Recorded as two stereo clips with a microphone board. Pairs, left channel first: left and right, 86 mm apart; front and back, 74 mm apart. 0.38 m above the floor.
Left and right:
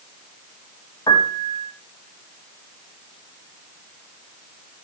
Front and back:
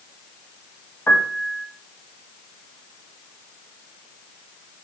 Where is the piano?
55° left, 2.5 m.